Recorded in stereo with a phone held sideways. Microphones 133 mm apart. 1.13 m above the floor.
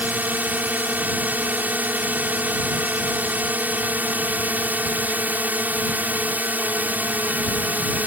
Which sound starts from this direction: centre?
A drone, at 0.0 s.